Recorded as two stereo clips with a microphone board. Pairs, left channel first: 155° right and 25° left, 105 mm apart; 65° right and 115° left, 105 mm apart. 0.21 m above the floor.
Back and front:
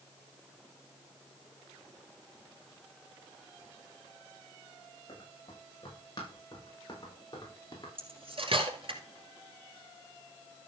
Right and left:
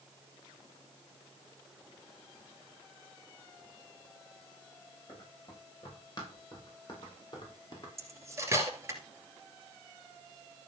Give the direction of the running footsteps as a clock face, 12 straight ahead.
4 o'clock.